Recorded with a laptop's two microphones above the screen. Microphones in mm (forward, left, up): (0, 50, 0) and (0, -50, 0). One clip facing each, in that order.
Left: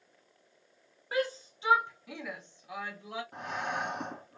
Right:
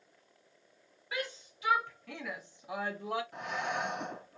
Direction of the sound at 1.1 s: 35° left (ahead or behind).